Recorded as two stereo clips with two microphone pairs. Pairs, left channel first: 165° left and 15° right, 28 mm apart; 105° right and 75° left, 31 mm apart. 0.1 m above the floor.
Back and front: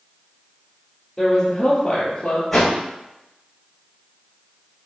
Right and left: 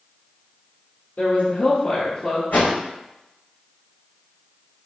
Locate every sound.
1.2 s a woman speaking: 120° right, 3 m; by 2.4 s 150° right, 2.5 m
2.5 s a whoosh: 110° right, 3 m